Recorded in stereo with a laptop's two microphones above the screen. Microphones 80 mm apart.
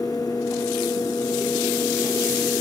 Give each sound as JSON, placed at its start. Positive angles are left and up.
{"t": 0.0, "sound": "a fan", "side_deg": 50, "distance_m": 0.8}